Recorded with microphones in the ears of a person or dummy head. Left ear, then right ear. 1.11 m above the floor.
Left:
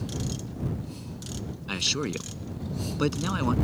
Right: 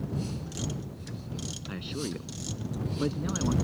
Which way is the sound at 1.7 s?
75° left (ahead or behind).